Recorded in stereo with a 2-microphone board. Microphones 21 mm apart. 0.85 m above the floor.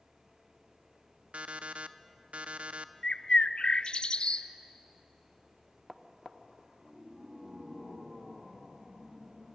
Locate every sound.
1.3 s an alarm clock: 90° right, 0.5 m
3.0 s a bird: 50° left (ahead or behind), 0.6 m